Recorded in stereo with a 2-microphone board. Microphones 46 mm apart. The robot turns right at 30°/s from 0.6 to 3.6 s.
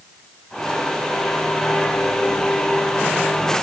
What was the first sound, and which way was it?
Only background noise.